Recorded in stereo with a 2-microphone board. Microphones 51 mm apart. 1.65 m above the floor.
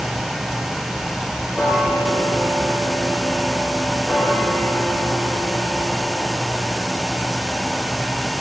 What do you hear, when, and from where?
1.6 s ticking: 25° left (ahead or behind), 5.5 m